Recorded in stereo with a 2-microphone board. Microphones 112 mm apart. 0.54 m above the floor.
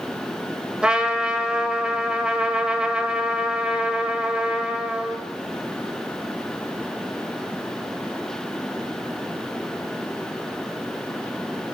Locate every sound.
0.8 s a trumpet: 10° right (ahead or behind), 1.2 m